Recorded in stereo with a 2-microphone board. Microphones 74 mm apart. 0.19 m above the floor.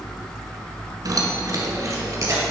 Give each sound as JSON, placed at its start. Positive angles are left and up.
{"t": 1.1, "sound": "keys jangling", "side_deg": -55, "distance_m": 1.5}